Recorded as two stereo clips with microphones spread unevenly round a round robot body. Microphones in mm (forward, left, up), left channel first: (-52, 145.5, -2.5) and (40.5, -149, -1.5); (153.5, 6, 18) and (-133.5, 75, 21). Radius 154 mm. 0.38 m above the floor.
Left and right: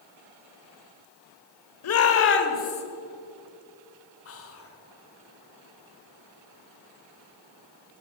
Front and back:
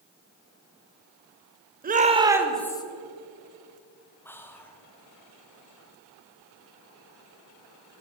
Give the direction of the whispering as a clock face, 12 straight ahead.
10 o'clock.